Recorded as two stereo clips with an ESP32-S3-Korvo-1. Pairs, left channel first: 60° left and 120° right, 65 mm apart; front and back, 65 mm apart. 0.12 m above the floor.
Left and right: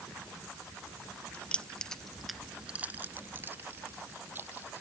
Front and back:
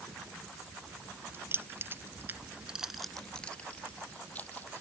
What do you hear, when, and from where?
1.3 s keys jangling: 130° left; by 4.8 s 65° right